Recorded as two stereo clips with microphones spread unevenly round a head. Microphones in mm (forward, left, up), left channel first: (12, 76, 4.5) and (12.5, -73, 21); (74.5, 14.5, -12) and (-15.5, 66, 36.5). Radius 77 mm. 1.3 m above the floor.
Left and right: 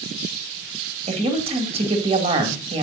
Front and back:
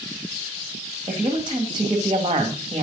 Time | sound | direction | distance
1.1 | a woman speaking | 145° right | 2 m